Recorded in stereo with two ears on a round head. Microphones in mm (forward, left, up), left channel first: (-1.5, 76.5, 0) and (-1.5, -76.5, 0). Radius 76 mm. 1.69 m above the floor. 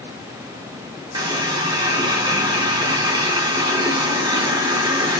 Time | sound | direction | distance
1.1 | a running tap | 25° right (ahead or behind) | 1.2 m